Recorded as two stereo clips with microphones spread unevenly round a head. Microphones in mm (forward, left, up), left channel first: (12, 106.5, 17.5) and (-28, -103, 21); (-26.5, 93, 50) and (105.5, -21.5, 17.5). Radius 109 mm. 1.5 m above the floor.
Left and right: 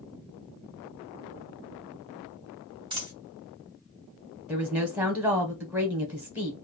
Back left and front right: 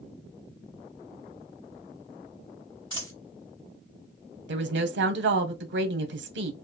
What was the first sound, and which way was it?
A dropped coin, 165° right.